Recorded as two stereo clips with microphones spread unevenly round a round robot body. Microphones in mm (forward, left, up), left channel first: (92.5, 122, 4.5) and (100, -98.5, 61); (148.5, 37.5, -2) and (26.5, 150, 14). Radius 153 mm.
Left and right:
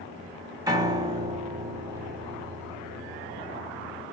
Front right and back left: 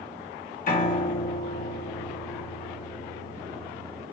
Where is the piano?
10° right, 1.8 m.